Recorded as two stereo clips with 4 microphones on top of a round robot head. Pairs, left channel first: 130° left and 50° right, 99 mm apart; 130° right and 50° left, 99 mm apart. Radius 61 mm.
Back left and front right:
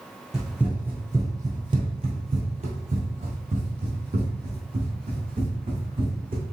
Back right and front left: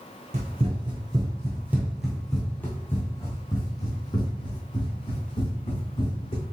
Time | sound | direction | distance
0.3 | running footsteps | 35° left | 1.1 m